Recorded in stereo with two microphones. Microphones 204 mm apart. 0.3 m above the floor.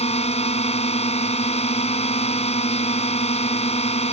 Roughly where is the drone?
Left.